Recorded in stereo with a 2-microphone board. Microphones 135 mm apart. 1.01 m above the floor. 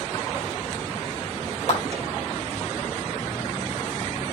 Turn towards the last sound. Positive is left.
turn(degrees=60)  # may be behind; listen again after turning